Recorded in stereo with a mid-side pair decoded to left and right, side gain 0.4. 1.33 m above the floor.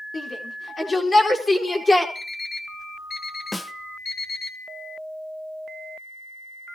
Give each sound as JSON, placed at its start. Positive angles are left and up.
{"t": 0.1, "sound": "a shout", "azimuth_deg": 40, "distance_m": 4.5}
{"t": 2.1, "sound": "an alarm clock", "azimuth_deg": 40, "distance_m": 5.5}
{"t": 3.5, "sound": "a snare drum", "azimuth_deg": 15, "distance_m": 1.1}